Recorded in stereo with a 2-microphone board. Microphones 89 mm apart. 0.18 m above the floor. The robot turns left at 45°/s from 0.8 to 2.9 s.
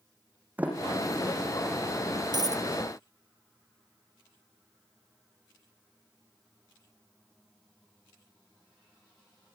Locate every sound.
0.6 s a sliding door: 15° right (ahead or behind), 6 m; by 1.3 s 10° left (ahead or behind), 6 m
2.3 s a dropped coin: 50° right (ahead or behind), 1.6 m; by 2.6 s 40° right (ahead or behind), 1.6 m